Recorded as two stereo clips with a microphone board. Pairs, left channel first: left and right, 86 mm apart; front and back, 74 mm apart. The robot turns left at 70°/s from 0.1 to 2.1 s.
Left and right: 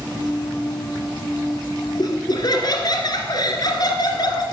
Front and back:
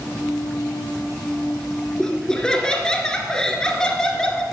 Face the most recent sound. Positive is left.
turn(degrees=80)